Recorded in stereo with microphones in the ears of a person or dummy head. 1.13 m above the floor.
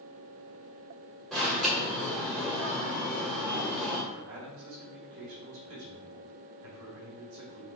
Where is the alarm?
Centre (ahead or behind), 2 m.